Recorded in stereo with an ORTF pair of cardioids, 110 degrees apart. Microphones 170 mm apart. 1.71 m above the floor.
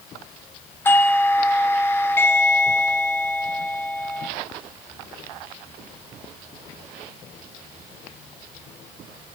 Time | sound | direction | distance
0.8 | a doorbell | 15° left | 0.7 m